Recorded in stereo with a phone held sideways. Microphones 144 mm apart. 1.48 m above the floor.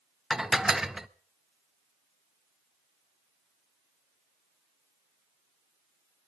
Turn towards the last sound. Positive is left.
turn(degrees=-5)  # may be behind; listen again after turning